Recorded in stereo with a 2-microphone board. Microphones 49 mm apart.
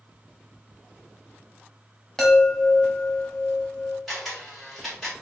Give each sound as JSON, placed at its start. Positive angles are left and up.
{"t": 2.2, "sound": "a chime", "side_deg": 5, "distance_m": 1.1}
{"t": 4.1, "sound": "a camera shutter", "side_deg": 0, "distance_m": 1.2}